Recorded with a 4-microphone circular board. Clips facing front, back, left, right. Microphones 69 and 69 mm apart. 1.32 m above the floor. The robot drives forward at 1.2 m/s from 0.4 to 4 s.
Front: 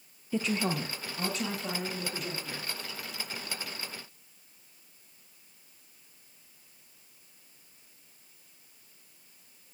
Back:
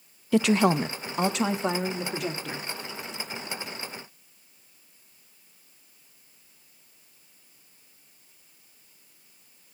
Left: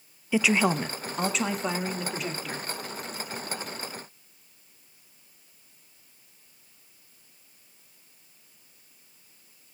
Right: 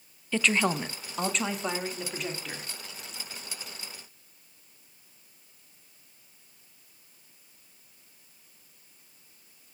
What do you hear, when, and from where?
0.3 s a woman speaking: 170° left, 0.7 m; by 2.7 s straight behind, 3.5 m